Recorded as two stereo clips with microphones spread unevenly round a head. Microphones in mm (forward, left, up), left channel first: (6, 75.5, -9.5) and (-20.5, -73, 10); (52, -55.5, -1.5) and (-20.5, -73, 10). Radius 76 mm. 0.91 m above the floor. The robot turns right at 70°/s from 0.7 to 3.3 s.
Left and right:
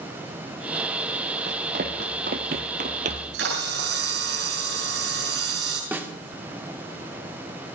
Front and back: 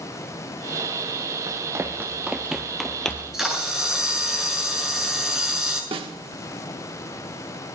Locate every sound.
1.5 s running footsteps: 140° right, 2.5 m; by 3.4 s 75° right, 1.7 m
3.1 s a camera shutter: 95° right, 7 m; by 5.8 s 80° right, 7 m
5.9 s a snare drum: straight behind, 2.0 m